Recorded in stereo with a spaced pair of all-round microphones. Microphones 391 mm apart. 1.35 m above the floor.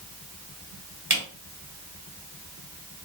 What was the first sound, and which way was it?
A camera shutter, 45° right (ahead or behind).